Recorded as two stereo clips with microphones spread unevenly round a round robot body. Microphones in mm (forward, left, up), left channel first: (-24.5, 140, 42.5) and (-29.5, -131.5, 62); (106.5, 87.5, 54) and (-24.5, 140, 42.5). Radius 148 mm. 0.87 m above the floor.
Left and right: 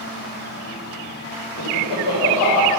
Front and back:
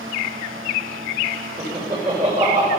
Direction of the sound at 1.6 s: 110° left.